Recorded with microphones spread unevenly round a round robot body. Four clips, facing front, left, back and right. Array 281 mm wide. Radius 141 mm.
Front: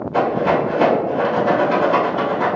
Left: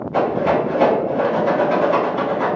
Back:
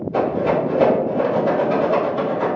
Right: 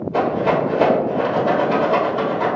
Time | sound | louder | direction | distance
0.1 | a rattle | left 1 dB, front 2 dB | 170° left | 1.8 m